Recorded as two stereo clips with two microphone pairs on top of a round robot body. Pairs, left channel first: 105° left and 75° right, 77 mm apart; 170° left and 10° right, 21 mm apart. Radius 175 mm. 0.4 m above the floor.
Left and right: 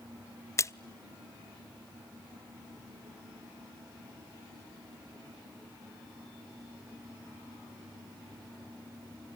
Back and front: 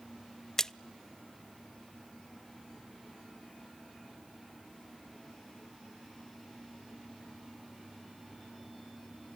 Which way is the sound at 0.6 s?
120° left.